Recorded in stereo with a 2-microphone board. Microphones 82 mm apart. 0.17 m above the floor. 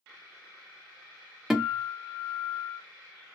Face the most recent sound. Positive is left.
turn(degrees=-5)  # may be behind; listen again after turning